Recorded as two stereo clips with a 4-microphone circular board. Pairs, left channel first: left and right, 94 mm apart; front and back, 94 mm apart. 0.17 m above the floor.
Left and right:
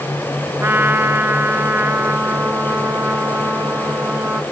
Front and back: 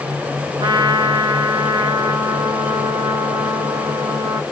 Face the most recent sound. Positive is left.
turn(degrees=-155)